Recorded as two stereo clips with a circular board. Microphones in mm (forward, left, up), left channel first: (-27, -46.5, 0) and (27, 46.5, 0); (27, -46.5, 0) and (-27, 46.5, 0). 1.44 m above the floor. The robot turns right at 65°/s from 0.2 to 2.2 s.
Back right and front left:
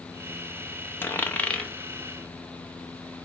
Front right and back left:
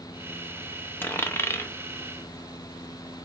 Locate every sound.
1.0 s a dropped coin: 95° right, 0.7 m; by 1.7 s 45° right, 0.7 m